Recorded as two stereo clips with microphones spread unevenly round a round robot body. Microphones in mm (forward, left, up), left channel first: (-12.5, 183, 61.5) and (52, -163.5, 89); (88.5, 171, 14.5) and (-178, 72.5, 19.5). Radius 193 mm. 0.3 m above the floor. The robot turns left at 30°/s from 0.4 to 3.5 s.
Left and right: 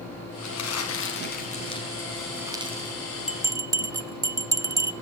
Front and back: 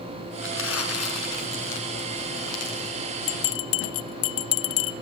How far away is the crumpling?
About 4.5 m.